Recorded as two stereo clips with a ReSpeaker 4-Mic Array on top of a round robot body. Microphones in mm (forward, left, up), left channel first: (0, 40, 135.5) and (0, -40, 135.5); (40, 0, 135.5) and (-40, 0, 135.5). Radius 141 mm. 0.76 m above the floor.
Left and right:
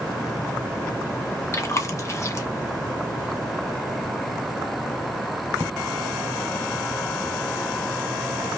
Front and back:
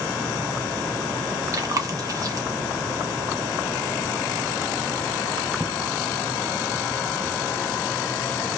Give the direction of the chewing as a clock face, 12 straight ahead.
7 o'clock.